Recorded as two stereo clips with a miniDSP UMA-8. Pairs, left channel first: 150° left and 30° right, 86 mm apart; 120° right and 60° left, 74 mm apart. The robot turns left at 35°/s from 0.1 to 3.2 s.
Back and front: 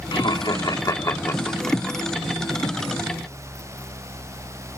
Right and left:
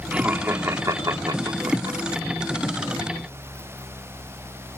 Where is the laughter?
130° left, 2.5 m; by 2.0 s 65° left, 2.5 m.